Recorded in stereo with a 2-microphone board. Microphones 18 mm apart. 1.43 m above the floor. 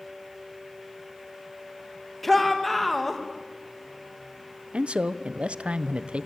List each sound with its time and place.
2.2 s a shout: 10° left (ahead or behind), 1.8 m
4.7 s a man speaking: 75° right (ahead or behind), 0.9 m